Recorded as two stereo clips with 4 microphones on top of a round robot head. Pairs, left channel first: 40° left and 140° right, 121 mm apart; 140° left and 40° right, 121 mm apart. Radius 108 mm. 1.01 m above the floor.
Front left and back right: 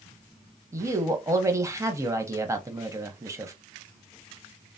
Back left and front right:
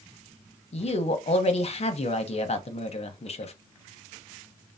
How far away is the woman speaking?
About 0.8 m.